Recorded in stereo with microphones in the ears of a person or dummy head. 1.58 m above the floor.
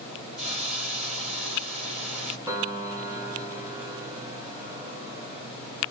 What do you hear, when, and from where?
0.4 s a hiss: 30° right (ahead or behind), 0.9 m
2.5 s a piano: 20° right (ahead or behind), 0.9 m